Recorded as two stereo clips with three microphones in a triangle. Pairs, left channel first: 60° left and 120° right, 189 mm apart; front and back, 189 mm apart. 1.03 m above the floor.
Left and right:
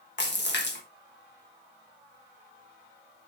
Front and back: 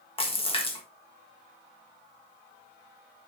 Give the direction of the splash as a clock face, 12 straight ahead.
10 o'clock.